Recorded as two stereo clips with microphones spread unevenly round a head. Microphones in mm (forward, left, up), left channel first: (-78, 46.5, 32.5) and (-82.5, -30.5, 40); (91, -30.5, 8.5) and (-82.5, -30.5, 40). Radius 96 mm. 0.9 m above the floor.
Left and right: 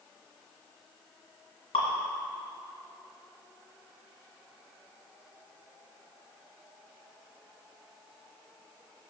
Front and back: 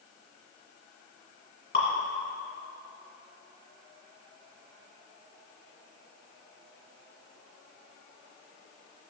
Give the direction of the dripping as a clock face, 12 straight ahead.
10 o'clock.